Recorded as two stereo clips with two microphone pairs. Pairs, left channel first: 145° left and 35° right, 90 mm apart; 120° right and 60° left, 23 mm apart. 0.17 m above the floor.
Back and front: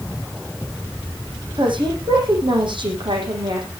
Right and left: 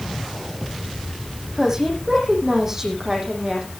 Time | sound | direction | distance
1.6 | a woman speaking | 10° right | 7.5 m